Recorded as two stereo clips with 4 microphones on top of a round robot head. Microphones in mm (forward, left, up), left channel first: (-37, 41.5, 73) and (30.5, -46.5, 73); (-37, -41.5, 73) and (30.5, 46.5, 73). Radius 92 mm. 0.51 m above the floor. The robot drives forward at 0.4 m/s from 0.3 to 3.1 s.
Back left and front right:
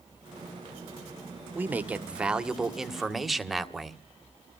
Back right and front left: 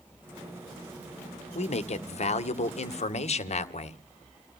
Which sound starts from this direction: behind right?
A man speaking, at 1.6 s.